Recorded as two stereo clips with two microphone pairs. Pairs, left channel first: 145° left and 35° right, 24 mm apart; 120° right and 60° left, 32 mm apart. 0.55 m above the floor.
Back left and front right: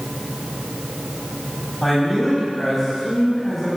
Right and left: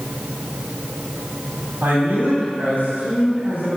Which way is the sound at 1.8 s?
60° left.